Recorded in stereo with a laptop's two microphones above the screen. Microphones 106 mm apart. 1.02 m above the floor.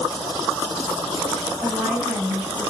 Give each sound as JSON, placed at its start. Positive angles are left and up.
{"t": 1.6, "sound": "a woman speaking", "side_deg": -10, "distance_m": 8.0}